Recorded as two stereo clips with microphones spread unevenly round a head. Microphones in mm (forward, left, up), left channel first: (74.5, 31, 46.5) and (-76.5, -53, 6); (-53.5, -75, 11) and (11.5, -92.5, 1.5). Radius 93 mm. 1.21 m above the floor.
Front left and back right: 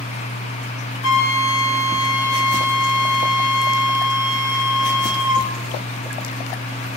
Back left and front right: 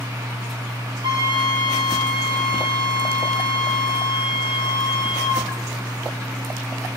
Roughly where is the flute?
Ahead.